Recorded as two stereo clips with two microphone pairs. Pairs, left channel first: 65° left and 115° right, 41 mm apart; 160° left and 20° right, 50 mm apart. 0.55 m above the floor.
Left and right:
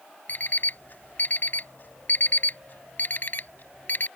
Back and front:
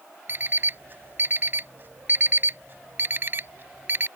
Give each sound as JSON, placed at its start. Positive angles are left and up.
{"t": 0.3, "sound": "an alarm clock", "azimuth_deg": 25}